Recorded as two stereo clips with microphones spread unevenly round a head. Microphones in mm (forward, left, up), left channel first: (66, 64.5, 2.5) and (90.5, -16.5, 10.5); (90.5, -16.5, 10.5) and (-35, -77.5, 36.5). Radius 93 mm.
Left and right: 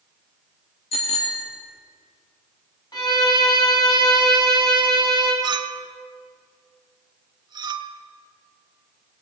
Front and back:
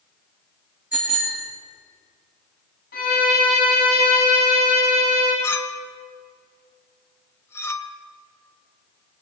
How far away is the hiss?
I don't hear a hiss.